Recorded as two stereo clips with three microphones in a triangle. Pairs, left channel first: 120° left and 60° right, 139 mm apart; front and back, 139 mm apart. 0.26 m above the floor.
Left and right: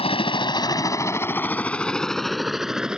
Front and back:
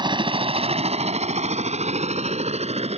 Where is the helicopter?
140° left; by 3.0 s 145° right.